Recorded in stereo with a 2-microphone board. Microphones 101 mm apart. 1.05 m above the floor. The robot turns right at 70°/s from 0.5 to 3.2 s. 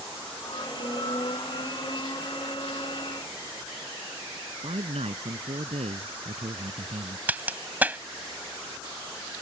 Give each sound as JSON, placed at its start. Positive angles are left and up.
{"t": 4.6, "sound": "a man speaking", "side_deg": -85}
{"t": 7.3, "sound": "a crack", "side_deg": -15}